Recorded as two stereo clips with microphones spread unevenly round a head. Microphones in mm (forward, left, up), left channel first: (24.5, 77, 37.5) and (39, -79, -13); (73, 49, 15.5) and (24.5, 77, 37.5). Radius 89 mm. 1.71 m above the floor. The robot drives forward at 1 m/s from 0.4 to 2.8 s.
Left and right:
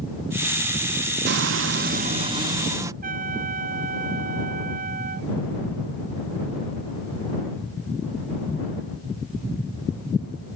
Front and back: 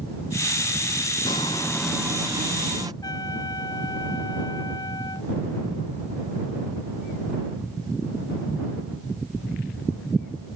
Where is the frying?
60° right; by 2.9 s 160° right.